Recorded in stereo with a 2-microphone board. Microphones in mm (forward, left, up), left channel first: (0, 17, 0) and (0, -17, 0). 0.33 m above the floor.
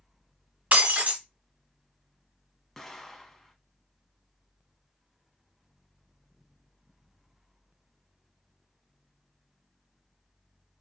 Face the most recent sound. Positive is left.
turn(degrees=10)  # may be behind; listen again after turning